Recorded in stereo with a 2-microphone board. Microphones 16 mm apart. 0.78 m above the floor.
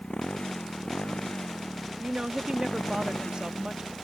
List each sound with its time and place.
0.0 s a motorcycle: 80° left
2.0 s a woman speaking: 55° right (ahead or behind)